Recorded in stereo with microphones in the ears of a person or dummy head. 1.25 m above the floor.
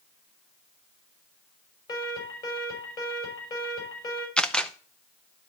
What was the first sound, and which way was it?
An alarm, 30° left (ahead or behind).